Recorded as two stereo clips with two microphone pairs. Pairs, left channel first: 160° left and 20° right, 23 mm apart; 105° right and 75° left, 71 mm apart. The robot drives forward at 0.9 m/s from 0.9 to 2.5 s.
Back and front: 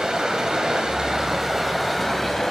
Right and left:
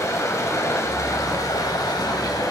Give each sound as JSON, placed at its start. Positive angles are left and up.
{"t": 0.0, "sound": "running water", "azimuth_deg": -70, "distance_m": 1.5}